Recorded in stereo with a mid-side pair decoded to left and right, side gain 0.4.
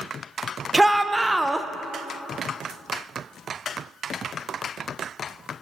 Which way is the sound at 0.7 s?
15° right.